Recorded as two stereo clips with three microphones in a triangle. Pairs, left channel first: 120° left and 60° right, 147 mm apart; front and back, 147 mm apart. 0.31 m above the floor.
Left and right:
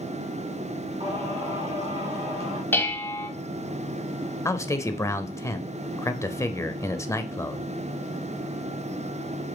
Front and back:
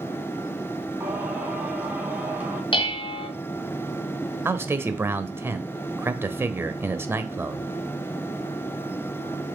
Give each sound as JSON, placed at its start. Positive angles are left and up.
{"t": 1.0, "sound": "singing", "azimuth_deg": -100, "distance_m": 1.9}
{"t": 2.7, "sound": "dishes clattering", "azimuth_deg": 45, "distance_m": 1.4}
{"t": 4.5, "sound": "a man speaking", "azimuth_deg": 140, "distance_m": 0.9}